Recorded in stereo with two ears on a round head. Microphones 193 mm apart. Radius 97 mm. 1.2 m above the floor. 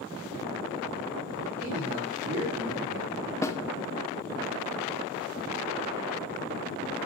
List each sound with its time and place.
1.6 s a man speaking: 55° right (ahead or behind), 3 m
3.4 s a snare drum: 15° left (ahead or behind), 0.8 m